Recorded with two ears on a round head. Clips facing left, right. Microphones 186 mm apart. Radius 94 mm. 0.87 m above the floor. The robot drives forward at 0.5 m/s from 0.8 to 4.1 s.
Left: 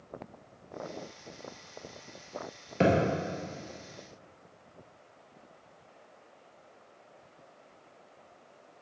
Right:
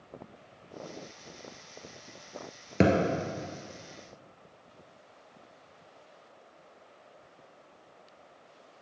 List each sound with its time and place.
2.8 s a thud: 60° right (ahead or behind), 1.5 m